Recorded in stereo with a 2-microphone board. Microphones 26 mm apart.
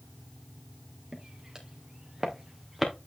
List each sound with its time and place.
1.1 s footsteps: 35° right (ahead or behind), 2.5 m; by 2.9 s 10° right (ahead or behind), 2.5 m